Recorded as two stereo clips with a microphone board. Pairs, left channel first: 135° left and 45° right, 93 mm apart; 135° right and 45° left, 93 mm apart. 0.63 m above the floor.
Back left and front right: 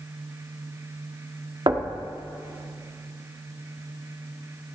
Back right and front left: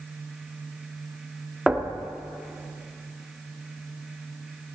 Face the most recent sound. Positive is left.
turn(degrees=-40)